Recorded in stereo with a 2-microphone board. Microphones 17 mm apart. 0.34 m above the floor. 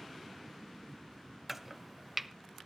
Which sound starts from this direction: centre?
Chopping, at 1.5 s.